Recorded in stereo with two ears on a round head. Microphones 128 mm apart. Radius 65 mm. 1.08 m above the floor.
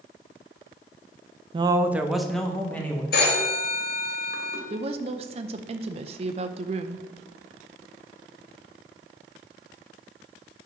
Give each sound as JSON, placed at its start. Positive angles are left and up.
{"t": 1.5, "sound": "a man speaking", "side_deg": -35, "distance_m": 0.6}
{"t": 3.1, "sound": "a phone ringing", "side_deg": 75, "distance_m": 2.0}
{"t": 4.7, "sound": "a woman speaking", "side_deg": -40, "distance_m": 0.6}